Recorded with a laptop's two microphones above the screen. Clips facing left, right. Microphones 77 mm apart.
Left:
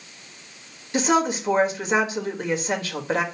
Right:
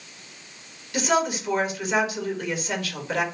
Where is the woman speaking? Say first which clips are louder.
Left 2 dB; 30° left (ahead or behind), 1.4 m.